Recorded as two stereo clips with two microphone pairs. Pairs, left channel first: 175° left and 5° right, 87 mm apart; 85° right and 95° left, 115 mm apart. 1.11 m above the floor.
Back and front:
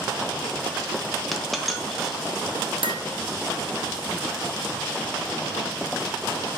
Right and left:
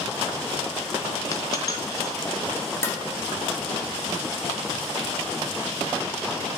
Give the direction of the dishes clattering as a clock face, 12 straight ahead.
12 o'clock.